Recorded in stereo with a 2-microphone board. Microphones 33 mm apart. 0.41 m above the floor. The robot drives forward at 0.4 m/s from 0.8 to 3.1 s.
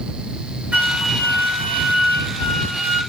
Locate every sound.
0.7 s a flute: 55° right (ahead or behind), 2 m